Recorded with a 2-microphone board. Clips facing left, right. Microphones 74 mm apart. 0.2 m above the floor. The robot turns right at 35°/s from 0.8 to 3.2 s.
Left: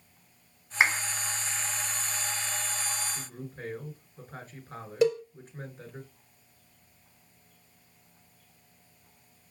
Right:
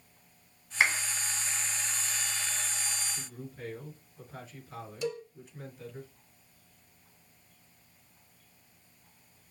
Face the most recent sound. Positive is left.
turn(degrees=75)  # may be behind; listen again after turning